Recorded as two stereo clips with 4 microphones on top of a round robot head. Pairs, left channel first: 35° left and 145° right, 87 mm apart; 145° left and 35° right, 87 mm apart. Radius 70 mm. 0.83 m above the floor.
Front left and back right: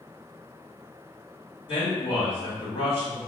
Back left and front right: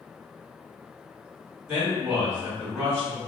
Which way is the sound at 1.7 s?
30° left.